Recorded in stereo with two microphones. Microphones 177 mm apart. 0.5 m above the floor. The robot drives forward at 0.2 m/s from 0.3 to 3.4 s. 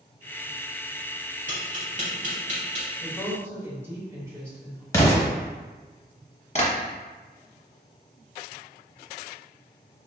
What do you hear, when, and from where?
1.5 s tapping: 45° right (ahead or behind), 2.0 m
3.0 s a woman speaking: 15° right (ahead or behind), 1.6 m
4.9 s an explosion: 15° left (ahead or behind), 1.1 m
6.5 s tapping: 35° left (ahead or behind), 1.2 m